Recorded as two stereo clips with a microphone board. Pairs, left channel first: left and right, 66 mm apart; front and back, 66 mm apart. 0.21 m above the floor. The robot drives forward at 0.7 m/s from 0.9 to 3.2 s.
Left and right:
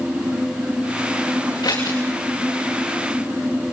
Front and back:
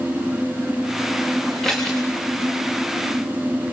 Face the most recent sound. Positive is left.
turn(degrees=95)